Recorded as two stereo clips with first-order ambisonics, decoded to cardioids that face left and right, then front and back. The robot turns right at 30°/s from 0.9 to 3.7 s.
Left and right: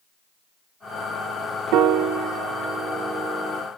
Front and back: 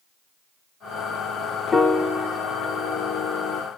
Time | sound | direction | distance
1.7 | a piano | 75° right | 0.5 m